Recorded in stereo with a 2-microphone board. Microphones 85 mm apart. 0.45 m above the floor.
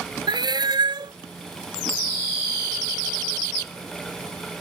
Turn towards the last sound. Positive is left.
turn(degrees=-70)  # may be behind; listen again after turning